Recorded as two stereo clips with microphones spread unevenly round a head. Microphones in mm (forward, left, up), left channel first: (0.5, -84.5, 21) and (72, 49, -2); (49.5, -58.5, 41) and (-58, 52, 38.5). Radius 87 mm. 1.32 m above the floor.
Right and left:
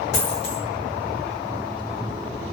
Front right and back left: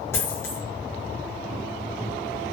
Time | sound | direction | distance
0.1 | a dropped coin | 120° right | 5.5 m